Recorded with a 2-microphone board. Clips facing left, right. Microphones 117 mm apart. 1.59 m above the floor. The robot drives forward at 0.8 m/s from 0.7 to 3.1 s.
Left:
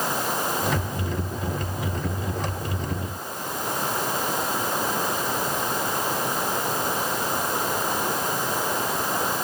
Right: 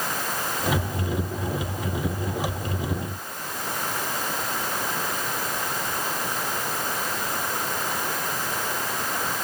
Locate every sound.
0.0 s running water: 20° left (ahead or behind)